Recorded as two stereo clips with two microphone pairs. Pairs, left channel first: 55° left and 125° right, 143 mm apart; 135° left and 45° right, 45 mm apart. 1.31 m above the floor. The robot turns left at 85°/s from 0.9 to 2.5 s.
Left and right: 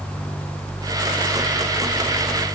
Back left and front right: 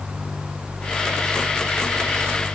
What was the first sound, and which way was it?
Only background noise.